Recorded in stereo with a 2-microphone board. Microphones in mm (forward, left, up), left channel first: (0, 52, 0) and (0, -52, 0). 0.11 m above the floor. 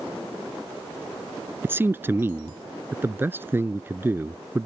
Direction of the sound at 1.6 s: 20° right (ahead or behind).